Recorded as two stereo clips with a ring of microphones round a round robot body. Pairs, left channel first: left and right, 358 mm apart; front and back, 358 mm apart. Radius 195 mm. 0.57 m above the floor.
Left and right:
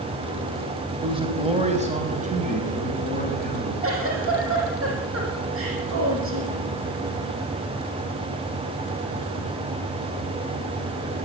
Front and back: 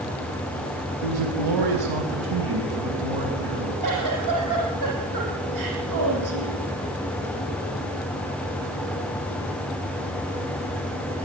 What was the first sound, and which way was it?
A man speaking, 165° right.